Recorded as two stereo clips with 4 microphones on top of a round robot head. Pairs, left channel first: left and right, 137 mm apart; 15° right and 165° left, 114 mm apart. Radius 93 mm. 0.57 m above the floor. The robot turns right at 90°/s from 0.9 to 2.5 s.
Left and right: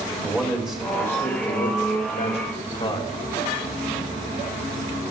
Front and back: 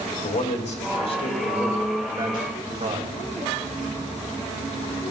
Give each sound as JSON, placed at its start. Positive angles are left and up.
{"t": 0.2, "sound": "a man speaking", "azimuth_deg": -5, "distance_m": 3.5}